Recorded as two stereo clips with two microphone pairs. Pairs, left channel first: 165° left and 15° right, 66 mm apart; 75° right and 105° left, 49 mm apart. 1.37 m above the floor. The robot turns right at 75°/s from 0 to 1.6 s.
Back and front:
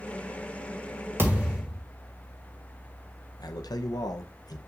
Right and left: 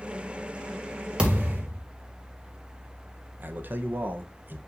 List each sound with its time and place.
1.2 s a thud: 35° left, 2.5 m; by 1.8 s 65° left, 2.5 m
3.4 s a man speaking: 155° left, 1.0 m